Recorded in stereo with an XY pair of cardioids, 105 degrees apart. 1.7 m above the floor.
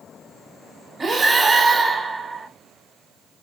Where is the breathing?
30° right, 1.8 m.